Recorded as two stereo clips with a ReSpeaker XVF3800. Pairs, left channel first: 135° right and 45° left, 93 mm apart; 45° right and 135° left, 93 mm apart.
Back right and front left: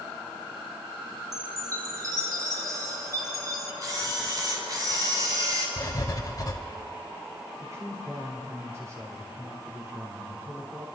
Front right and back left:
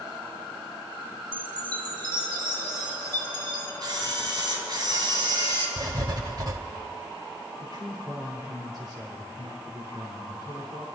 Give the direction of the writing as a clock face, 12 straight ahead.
6 o'clock.